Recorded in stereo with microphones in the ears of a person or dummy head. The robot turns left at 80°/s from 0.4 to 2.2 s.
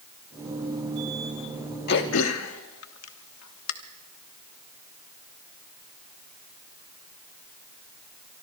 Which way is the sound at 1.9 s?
50° left (ahead or behind).